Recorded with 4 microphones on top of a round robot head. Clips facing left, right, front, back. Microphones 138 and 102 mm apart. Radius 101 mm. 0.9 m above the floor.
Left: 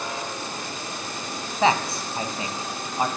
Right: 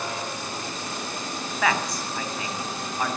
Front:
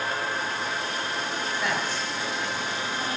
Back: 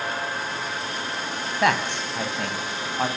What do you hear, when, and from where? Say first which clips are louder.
1.6 s a man speaking: left 4 dB, back 10 dB; 155° left, 7 m